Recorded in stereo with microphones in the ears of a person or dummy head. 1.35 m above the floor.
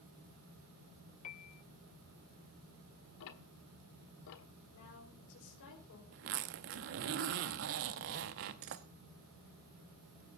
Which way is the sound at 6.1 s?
50° right (ahead or behind).